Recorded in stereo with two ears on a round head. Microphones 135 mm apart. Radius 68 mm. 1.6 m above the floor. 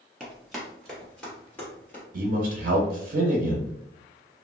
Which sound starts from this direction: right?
A man speaking, at 2.1 s.